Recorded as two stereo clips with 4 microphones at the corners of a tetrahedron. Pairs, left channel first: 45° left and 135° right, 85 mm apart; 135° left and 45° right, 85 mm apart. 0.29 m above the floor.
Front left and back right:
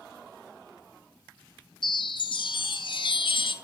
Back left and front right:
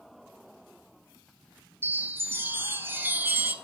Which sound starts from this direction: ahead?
A chime, at 1.8 s.